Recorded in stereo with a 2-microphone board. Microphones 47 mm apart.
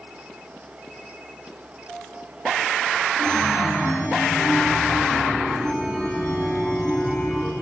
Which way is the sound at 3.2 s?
15° left (ahead or behind).